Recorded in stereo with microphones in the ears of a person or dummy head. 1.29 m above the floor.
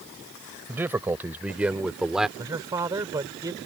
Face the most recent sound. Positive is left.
turn(degrees=-20)  # may be behind; listen again after turning